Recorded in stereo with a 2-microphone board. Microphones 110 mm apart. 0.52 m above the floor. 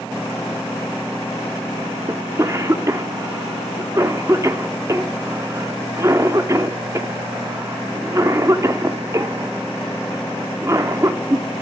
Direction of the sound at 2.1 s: 30° right (ahead or behind).